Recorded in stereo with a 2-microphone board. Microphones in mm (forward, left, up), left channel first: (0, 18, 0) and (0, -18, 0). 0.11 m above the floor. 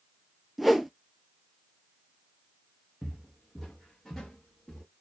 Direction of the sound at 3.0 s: 5° right (ahead or behind).